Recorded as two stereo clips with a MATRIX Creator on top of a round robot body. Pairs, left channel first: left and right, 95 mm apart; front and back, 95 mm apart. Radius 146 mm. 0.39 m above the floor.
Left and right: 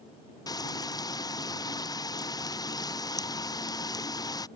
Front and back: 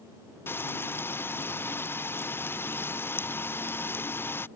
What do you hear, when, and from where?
0.5 s frying: 60° left